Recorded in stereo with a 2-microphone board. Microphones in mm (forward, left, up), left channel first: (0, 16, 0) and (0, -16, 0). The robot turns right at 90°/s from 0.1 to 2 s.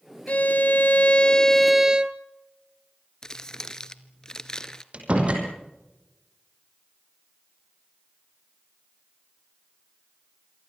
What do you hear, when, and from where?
0.3 s a violin: 50° left, 1.0 m; by 2.2 s 150° right, 1.0 m
3.2 s crumpling: 20° left (ahead or behind), 1.1 m
4.9 s a door slam: 40° right (ahead or behind), 5 m